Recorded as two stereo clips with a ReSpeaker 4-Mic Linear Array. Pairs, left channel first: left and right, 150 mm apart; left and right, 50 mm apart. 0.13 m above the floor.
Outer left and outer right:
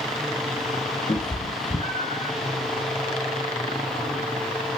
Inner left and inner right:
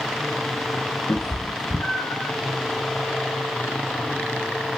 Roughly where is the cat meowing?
Left.